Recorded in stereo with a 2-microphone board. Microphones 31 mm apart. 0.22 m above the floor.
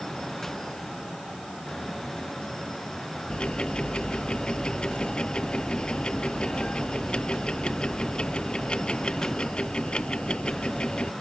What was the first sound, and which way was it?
Ticking, 35° left (ahead or behind).